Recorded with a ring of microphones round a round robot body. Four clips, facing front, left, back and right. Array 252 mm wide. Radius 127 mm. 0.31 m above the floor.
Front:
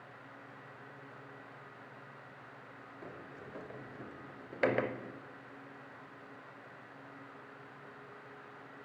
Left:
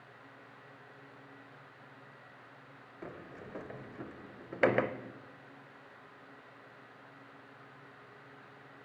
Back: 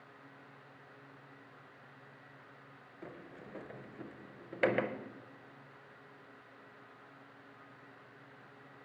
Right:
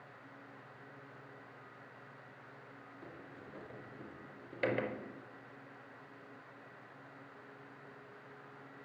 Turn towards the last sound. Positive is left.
turn(degrees=95)